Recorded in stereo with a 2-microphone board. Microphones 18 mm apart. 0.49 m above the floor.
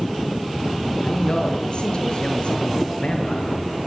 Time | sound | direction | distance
1.0 | a man speaking | 55° left (ahead or behind) | 7 m